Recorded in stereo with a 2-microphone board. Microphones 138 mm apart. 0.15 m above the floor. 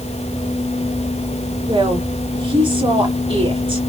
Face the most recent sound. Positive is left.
turn(degrees=-40)  # may be behind; listen again after turning